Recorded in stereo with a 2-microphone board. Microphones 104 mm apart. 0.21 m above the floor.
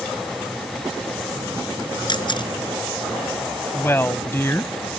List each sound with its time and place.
2.1 s a camera shutter: 50° left (ahead or behind)
3.7 s a woman speaking: 25° left (ahead or behind)